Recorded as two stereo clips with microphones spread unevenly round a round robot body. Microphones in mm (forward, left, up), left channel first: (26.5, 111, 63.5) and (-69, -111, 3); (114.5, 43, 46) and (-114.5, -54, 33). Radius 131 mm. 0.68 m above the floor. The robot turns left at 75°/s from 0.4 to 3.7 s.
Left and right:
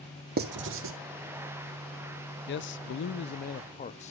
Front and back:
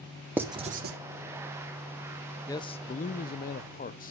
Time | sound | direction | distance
0.4 | writing | 75° right | 0.9 m
2.5 | a man speaking | 95° left | 0.5 m